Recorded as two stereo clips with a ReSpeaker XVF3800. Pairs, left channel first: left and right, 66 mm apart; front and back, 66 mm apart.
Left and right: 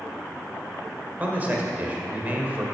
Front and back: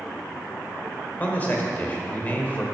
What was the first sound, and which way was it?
A man speaking, 45° right.